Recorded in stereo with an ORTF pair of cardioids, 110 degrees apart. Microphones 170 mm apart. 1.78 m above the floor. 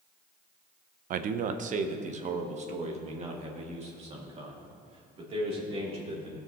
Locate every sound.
1.1 s a man speaking: 55° right, 0.7 m; by 6.4 s 35° right, 3.5 m